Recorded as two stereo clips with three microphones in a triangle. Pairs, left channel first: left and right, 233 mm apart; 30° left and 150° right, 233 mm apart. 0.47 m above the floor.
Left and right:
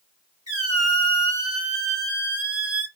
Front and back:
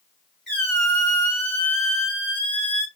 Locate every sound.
0.5 s a squeak: 105° right, 2.5 m